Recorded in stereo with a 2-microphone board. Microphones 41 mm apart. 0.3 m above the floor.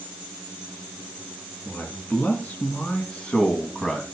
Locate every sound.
1.6 s a man speaking: 50° left (ahead or behind), 3.5 m; by 4.0 s 15° left (ahead or behind), 2 m